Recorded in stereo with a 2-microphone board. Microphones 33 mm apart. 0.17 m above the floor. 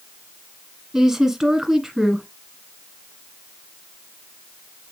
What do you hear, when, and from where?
0.9 s a woman speaking: 15° right (ahead or behind), 1.2 m